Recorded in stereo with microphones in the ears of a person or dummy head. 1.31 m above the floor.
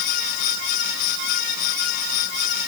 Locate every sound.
Only background noise.